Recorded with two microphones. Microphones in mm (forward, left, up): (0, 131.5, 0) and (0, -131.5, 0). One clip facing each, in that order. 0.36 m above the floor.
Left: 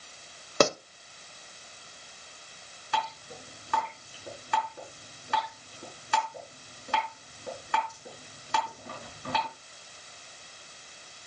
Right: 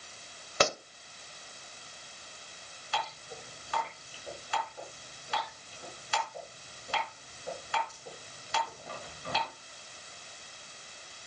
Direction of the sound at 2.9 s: 60° left (ahead or behind).